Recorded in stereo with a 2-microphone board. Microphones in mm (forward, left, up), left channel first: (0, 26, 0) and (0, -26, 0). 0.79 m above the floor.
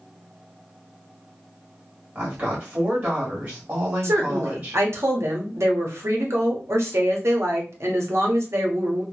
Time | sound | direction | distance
2.1 | a woman speaking | 40° right (ahead or behind) | 1.8 m
4.0 | a woman speaking | 65° right (ahead or behind) | 1.0 m